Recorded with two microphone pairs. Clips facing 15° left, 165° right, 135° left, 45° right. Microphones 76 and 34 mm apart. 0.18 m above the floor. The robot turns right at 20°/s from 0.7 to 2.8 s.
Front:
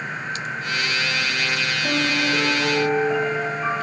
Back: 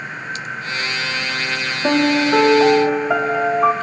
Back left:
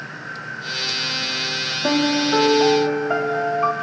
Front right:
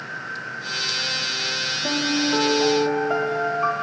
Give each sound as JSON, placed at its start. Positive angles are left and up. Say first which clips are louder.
{"t": 1.8, "sound": "a piano", "louder": "back 9 dB, back left 5 dB", "azimuth_deg": -165, "distance_m": 1.8}